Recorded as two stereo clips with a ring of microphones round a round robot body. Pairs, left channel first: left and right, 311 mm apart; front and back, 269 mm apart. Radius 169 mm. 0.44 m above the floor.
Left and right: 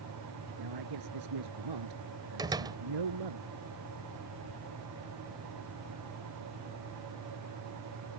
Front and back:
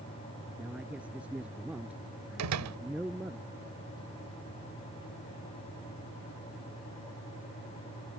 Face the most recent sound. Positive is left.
turn(degrees=-165)